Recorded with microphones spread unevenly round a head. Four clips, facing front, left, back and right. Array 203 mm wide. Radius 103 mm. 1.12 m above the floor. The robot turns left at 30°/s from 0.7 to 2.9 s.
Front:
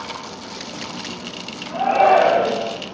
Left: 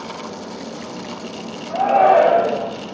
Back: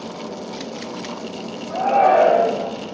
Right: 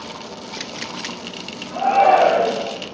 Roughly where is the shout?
Left.